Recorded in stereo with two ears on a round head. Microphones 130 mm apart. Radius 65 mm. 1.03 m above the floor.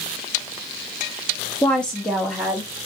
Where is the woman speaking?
10° left (ahead or behind), 0.6 m; by 2.7 s centre (ahead or behind), 1.4 m.